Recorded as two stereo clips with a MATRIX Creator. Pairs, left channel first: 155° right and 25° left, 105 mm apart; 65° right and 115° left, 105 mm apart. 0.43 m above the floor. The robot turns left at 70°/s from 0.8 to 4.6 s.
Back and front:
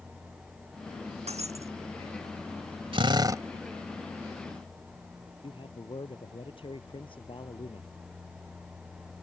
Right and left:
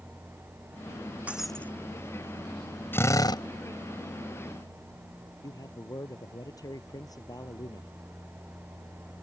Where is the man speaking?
120° right.